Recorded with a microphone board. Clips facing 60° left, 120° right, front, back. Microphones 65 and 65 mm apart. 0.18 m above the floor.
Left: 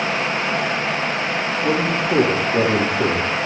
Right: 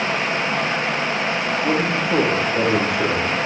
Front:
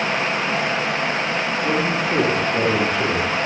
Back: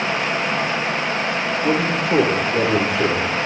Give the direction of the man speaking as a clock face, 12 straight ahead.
9 o'clock.